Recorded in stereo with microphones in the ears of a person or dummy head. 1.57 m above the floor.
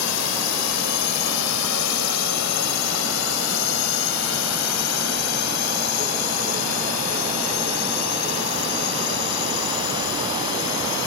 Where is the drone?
85° left.